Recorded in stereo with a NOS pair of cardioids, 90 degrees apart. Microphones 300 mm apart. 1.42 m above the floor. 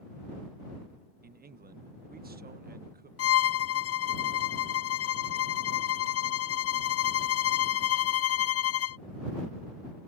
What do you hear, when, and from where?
1.2 s a man speaking: 30° right
3.2 s a violin: 50° left